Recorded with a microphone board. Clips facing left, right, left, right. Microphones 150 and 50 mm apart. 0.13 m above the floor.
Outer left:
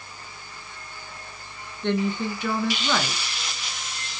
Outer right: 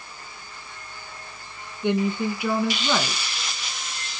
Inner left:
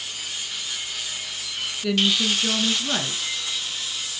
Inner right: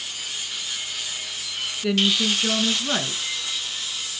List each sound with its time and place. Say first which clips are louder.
1.8 s a woman speaking: outer right 2 dB, inner right 1 dB; 10° right (ahead or behind), 1.7 m